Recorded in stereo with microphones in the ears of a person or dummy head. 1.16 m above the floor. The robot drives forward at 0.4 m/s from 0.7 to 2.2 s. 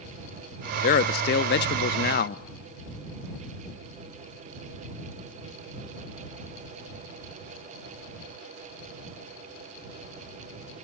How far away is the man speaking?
About 0.6 m.